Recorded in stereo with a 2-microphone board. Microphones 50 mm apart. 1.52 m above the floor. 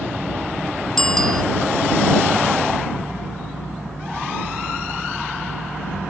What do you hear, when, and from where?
1.0 s a bicycle bell: 10° left (ahead or behind)